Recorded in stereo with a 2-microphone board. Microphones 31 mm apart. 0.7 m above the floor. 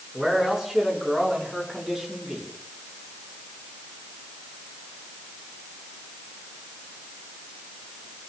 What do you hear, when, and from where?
0.1 s a man speaking: 15° right (ahead or behind), 8.5 m; by 2.5 s 20° right (ahead or behind), 6.5 m